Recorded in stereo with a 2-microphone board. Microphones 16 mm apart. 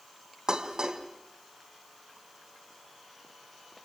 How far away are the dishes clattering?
About 3 m.